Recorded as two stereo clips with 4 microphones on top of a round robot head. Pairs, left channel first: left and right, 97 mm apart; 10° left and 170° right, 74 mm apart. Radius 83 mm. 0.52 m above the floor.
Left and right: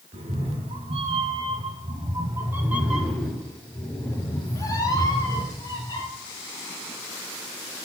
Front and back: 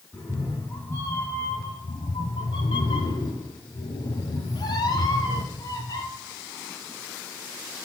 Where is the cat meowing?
75° right, 1.6 m; by 6.0 s 50° left, 2 m.